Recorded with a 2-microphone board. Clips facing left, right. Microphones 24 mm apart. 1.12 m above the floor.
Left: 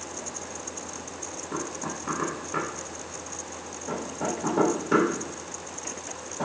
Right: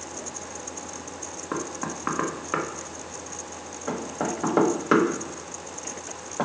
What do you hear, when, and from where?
1.5 s knocking: 65° right (ahead or behind), 1.2 m